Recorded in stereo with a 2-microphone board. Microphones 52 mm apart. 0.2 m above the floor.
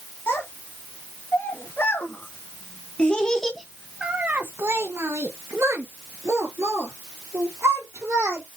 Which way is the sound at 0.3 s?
50° left (ahead or behind).